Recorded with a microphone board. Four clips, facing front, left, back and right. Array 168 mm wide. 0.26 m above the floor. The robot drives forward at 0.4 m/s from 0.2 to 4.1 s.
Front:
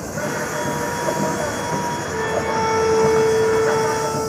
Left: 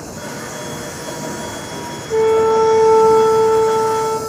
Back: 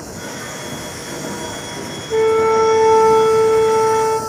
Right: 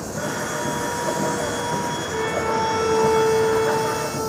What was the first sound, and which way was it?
An insect, 25° right.